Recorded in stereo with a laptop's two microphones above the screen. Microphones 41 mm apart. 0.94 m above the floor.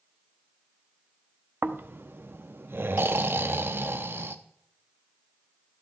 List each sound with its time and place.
1.6 s snoring: 65° right (ahead or behind), 0.7 m